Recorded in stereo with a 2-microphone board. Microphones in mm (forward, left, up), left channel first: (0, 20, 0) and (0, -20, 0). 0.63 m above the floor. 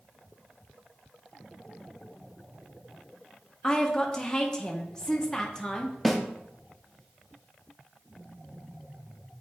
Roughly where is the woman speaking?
Centre.